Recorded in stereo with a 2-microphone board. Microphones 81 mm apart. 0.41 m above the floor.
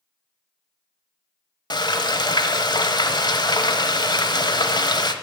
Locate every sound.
1.7 s frying: 65° left (ahead or behind), 1.0 m